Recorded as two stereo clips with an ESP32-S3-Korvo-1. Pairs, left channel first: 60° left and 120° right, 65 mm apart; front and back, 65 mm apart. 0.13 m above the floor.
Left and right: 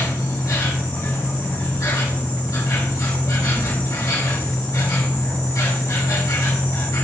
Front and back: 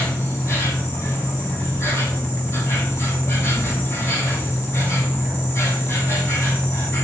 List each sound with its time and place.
0.0 s an insect: 45° left, 3.5 m